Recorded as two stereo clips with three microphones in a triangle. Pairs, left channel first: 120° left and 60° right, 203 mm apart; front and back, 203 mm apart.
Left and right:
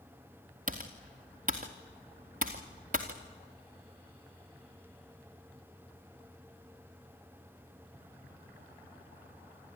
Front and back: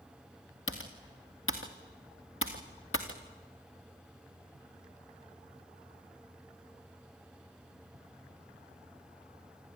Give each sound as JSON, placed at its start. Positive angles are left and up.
{"t": 0.7, "sound": "typing on a keyboard", "azimuth_deg": -10, "distance_m": 2.5}